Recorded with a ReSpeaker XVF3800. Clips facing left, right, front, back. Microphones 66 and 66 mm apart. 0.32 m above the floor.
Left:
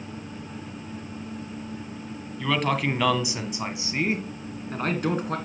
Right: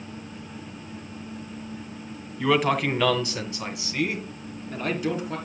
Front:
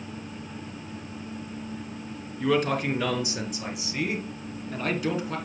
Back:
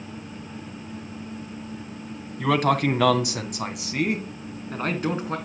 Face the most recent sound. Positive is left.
turn(degrees=130)